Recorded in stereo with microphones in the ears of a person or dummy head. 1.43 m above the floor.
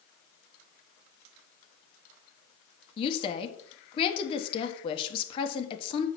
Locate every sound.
3.0 s a woman speaking: 30° left (ahead or behind), 1.3 m